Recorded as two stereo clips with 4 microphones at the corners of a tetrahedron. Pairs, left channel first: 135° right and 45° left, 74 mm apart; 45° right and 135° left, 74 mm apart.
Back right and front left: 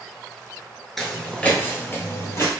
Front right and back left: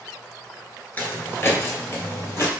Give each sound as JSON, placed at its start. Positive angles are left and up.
{"t": 1.0, "sound": "footsteps", "azimuth_deg": -50, "distance_m": 1.1}